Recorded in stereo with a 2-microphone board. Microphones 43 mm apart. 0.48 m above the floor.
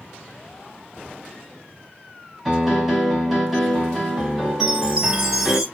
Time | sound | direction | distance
2.5 | a piano | centre (ahead or behind) | 1.7 m
4.6 | a chime | 10° right (ahead or behind) | 1.9 m